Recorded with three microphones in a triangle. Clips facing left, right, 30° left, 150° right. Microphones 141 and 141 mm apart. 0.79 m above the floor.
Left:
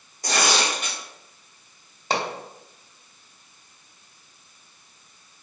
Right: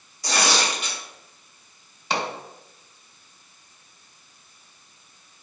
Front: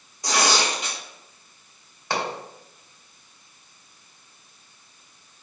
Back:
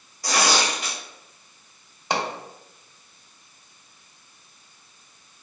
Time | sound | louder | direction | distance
0.2 | tearing paper | even, even | 90° left | 1.4 m
2.1 | a pop | left 1 dB, back 1 dB | 140° left | 1.1 m